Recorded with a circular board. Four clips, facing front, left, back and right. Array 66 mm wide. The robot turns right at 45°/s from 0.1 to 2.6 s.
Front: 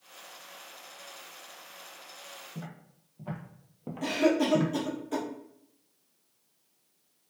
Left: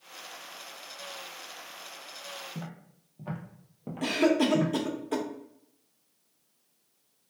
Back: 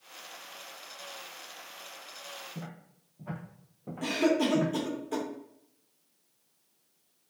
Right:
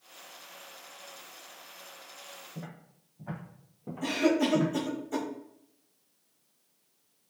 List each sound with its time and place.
2.5 s footsteps: 85° left, 1.7 m; by 4.7 s straight ahead, 1.5 m
4.0 s a cough: 90° left, 1.2 m